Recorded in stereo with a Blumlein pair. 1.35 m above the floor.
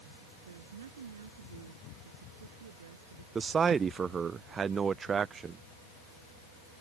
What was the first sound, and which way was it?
A woman speaking, 65° right.